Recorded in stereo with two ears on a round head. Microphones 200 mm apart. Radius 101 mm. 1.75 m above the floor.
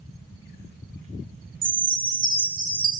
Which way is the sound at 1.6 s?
35° right (ahead or behind).